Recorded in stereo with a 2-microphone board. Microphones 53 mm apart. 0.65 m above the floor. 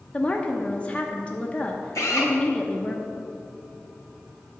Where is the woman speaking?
20° left (ahead or behind), 0.7 m.